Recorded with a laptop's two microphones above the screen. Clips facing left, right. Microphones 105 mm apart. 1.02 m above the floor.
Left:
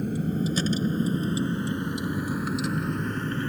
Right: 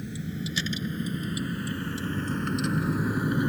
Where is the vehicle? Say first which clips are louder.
Left 8 dB; 50° left (ahead or behind); by 3.5 s 15° right (ahead or behind).